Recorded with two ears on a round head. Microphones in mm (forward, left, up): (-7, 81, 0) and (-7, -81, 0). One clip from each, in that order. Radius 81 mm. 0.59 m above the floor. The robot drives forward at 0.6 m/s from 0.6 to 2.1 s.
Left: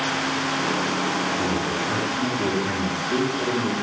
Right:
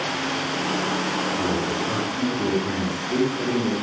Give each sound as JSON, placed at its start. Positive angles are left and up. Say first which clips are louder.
{"t": 1.4, "sound": "a man speaking", "louder": "even", "side_deg": 20, "distance_m": 4.0}